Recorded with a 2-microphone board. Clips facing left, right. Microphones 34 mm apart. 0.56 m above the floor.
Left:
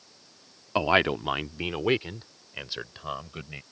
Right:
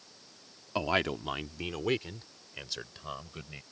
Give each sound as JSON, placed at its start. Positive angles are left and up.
{"t": 0.8, "sound": "a man speaking", "side_deg": 30}